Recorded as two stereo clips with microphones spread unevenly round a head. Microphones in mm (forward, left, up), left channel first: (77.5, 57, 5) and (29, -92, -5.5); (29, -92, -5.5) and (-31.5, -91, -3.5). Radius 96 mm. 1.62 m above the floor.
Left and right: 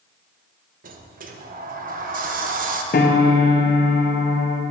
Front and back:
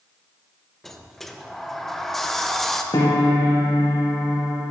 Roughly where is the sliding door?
Right.